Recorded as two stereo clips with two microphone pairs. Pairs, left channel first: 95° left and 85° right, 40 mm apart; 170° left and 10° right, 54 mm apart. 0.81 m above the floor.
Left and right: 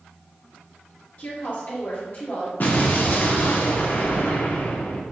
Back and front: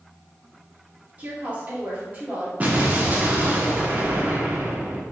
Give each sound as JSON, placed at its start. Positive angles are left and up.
{"t": 1.2, "sound": "a woman speaking", "azimuth_deg": 45, "distance_m": 2.0}
{"t": 2.6, "sound": "an explosion", "azimuth_deg": 50, "distance_m": 0.9}